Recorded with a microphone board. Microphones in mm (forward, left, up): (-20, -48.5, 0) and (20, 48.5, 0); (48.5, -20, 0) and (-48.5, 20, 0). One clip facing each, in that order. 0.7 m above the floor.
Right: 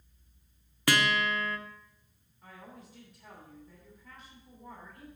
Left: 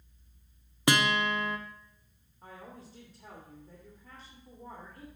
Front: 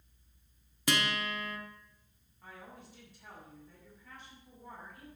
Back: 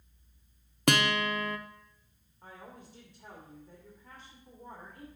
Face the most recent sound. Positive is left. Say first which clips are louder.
# left 2 dB, back 2 dB
turn(degrees=100)